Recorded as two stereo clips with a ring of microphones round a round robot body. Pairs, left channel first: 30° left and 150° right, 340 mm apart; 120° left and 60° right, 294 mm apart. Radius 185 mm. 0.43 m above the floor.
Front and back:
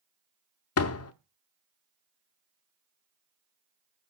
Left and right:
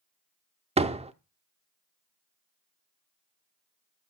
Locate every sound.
0.8 s a door slam: 5° left, 0.9 m